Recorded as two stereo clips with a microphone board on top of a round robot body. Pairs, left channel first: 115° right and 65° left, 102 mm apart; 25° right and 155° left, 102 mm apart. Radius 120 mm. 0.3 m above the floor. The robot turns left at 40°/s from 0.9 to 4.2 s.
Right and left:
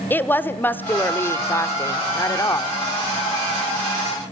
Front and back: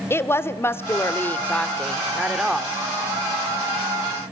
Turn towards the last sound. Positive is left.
turn(degrees=165)